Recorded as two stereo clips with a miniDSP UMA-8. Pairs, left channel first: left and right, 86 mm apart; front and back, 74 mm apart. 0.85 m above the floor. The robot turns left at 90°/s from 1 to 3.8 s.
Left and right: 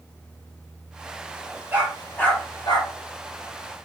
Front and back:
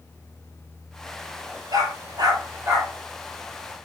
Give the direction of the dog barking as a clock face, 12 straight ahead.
5 o'clock.